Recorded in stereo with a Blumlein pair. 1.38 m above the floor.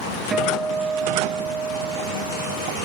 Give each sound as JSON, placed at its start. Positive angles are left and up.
{"t": 0.3, "sound": "a guitar", "azimuth_deg": -15}